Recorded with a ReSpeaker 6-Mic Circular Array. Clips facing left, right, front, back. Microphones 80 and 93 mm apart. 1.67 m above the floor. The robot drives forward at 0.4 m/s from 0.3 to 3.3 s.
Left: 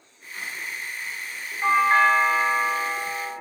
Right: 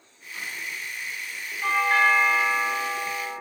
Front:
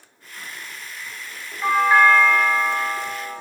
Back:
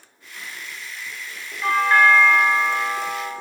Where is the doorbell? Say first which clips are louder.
Left 3 dB, front 1 dB; 50° left, 0.6 m; by 3.3 s 145° left, 0.7 m.